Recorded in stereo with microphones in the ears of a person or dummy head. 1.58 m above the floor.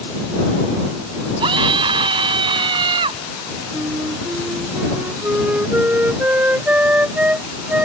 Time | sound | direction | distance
1.4 | a scream | 30° right (ahead or behind) | ?
3.7 | a flute | 10° right (ahead or behind) | ?